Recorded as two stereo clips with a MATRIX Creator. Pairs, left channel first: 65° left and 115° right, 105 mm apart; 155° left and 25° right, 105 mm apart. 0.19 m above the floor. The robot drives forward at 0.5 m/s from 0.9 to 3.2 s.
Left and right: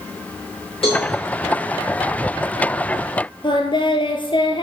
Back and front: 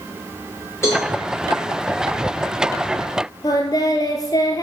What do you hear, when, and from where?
0.8 s a cowbell: 95° left, 6 m
3.4 s singing: 105° left, 1.6 m